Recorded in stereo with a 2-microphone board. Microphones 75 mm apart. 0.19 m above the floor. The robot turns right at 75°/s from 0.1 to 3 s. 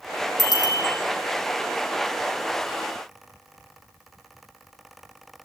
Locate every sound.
0.4 s a bicycle bell: 70° right (ahead or behind), 2.5 m; by 0.9 s 55° right (ahead or behind), 2.5 m